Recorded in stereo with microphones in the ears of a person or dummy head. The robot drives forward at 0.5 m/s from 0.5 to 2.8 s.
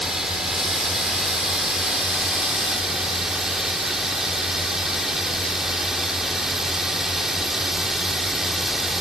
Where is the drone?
5° right (ahead or behind).